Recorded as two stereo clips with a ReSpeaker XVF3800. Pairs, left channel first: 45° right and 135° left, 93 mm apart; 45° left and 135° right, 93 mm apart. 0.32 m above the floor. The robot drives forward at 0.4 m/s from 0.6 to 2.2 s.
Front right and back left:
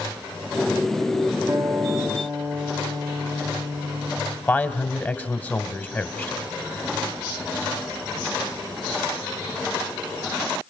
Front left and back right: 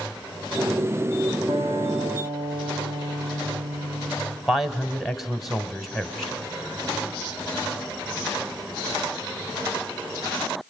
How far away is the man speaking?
About 1.5 m.